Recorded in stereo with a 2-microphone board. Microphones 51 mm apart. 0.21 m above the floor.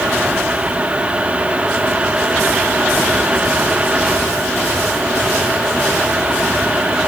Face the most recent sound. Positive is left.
No sound to turn to.